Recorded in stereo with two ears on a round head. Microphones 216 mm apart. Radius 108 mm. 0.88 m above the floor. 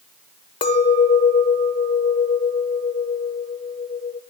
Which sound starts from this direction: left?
A clink, at 0.6 s.